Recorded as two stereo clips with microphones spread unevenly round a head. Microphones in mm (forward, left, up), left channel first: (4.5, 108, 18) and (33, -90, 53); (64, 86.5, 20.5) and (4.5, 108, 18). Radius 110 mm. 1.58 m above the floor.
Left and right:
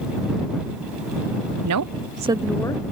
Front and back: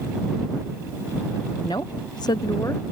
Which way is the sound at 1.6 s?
90° right.